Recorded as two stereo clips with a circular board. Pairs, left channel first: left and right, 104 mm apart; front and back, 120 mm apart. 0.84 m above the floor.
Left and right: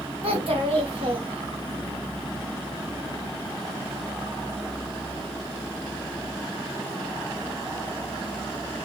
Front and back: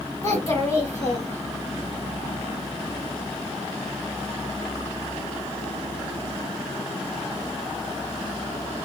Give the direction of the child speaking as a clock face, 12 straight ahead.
2 o'clock.